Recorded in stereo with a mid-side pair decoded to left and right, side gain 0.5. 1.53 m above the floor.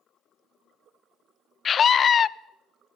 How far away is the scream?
About 0.5 m.